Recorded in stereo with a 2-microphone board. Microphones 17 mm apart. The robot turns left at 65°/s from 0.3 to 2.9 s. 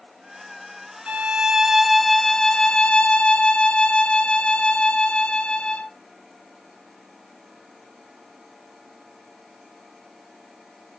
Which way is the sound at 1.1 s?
115° right.